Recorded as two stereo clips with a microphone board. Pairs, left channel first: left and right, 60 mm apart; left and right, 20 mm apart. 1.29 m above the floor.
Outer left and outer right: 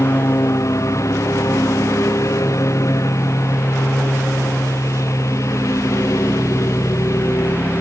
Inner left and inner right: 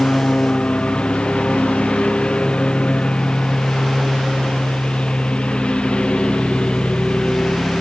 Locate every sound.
0.0 s a lawn mower: 55° left (ahead or behind)